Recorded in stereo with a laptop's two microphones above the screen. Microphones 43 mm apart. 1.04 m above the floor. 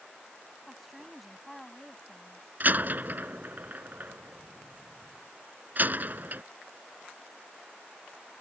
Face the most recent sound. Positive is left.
turn(degrees=-40)  # may be behind; listen again after turning